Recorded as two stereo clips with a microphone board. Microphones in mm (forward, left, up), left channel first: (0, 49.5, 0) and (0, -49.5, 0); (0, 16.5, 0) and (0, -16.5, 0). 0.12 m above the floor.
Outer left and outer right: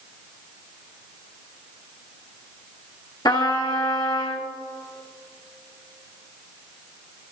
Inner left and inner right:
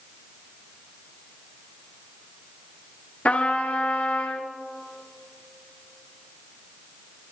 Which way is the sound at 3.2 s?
45° left (ahead or behind).